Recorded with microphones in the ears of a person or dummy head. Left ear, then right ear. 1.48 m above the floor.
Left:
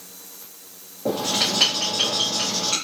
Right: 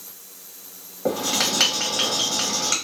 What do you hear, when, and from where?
1.1 s writing: 45° right (ahead or behind), 1.2 m